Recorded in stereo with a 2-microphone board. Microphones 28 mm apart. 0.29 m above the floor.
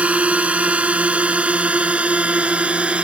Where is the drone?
60° right (ahead or behind); by 3.0 s 45° right (ahead or behind).